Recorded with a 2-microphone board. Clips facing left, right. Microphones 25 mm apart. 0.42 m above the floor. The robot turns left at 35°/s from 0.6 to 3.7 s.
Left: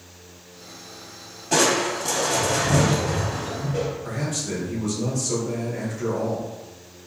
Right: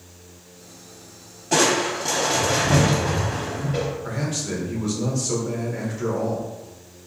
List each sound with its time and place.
1.5 s crushing: straight ahead, 0.5 m; by 3.9 s 75° right, 0.5 m
4.0 s a man speaking: 25° right (ahead or behind), 0.9 m